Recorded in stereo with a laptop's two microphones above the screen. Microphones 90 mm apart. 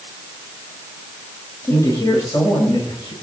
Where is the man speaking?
40° left (ahead or behind), 4 m; by 3.1 s 60° left (ahead or behind), 4 m.